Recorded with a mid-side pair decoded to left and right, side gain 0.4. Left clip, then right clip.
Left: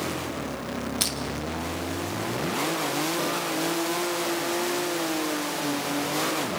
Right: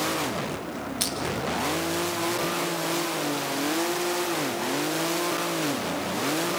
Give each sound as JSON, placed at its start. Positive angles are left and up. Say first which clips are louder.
{"t": 1.0, "sound": "crushing", "louder": "left 1 dB", "azimuth_deg": 20, "distance_m": 2.5}